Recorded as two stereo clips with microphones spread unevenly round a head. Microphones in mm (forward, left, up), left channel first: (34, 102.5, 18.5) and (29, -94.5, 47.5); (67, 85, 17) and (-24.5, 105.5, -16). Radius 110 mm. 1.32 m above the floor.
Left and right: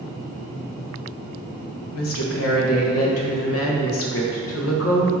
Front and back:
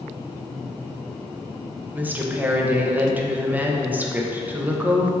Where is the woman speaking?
95° left, 1.4 m.